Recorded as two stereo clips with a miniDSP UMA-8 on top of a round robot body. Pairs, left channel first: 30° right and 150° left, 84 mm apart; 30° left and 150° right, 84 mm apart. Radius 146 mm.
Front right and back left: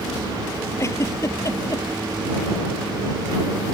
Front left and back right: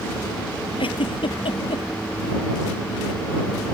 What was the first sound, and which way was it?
A giggle, 25° left.